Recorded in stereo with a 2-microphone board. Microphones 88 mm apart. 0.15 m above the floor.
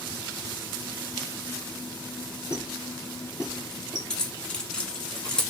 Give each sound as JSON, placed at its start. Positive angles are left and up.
{"t": 2.5, "sound": "a squeak", "side_deg": -50, "distance_m": 1.6}
{"t": 4.1, "sound": "keys jangling", "side_deg": 10, "distance_m": 0.9}